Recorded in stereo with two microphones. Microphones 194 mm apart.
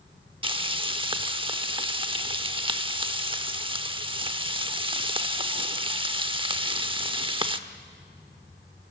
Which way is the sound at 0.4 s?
25° right (ahead or behind).